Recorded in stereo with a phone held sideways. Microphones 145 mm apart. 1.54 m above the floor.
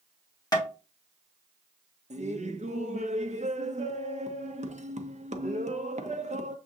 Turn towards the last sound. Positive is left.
turn(degrees=-55)  # may be behind; listen again after turning